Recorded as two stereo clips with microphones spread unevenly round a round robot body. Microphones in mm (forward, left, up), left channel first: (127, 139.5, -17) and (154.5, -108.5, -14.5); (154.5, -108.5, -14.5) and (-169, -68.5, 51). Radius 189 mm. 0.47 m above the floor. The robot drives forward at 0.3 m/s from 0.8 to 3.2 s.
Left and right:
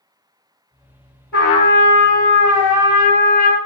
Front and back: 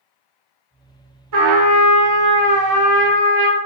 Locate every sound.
1.3 s a trumpet: straight behind, 1.0 m